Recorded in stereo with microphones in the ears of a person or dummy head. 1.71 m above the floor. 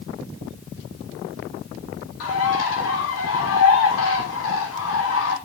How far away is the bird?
About 3.5 m.